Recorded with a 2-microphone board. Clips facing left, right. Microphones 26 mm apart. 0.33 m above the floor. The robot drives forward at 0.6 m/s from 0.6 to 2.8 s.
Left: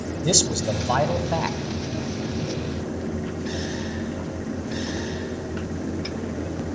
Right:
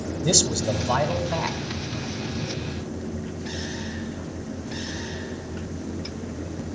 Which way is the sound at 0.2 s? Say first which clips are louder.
Even; 15° left (ahead or behind).